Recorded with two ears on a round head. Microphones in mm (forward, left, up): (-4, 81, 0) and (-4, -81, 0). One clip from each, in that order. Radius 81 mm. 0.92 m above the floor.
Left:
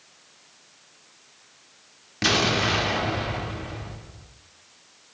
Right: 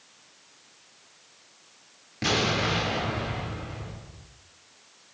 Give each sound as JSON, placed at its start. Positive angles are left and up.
{"t": 2.2, "sound": "an explosion", "side_deg": 35, "distance_m": 1.6}